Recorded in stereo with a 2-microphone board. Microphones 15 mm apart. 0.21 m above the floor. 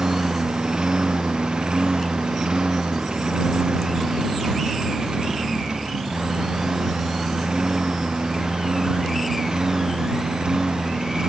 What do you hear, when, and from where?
0.0 s a lawn mower: 70° right (ahead or behind); by 11.3 s 60° right (ahead or behind)